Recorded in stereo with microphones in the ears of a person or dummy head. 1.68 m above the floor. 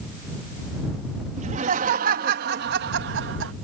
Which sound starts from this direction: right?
Laughter, at 1.4 s.